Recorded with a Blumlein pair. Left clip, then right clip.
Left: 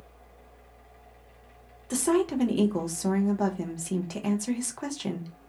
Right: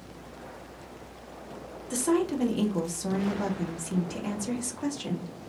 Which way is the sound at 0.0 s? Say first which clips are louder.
Right 9 dB; 10° left.